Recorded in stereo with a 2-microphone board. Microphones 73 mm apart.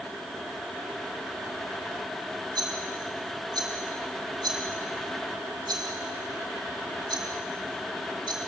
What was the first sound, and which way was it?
A rattle, 80° right.